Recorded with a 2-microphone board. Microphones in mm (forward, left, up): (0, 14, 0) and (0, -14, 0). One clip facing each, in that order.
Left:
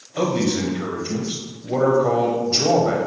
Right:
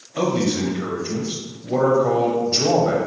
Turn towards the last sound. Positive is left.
turn(degrees=5)  # may be behind; listen again after turning